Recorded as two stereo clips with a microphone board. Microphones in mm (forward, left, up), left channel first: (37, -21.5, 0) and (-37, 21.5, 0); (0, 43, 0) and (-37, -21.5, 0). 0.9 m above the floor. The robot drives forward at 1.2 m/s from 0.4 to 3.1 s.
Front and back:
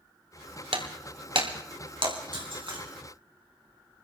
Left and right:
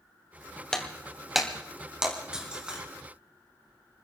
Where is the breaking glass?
145° left, 1.7 m; by 2.8 s 165° left, 4 m.